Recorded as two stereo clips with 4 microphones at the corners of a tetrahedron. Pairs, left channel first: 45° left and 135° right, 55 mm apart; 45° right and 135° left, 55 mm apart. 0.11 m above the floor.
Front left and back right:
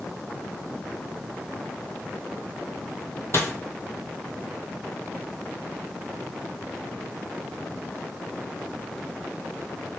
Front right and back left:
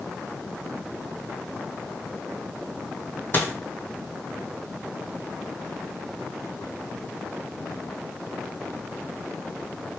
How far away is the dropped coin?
About 0.9 m.